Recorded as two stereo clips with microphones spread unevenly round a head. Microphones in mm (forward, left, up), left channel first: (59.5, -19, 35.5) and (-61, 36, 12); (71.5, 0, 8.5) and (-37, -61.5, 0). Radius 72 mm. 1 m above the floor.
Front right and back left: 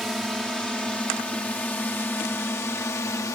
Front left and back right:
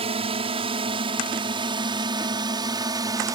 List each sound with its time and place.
0.0 s a drone: 120° right; by 3.3 s 95° right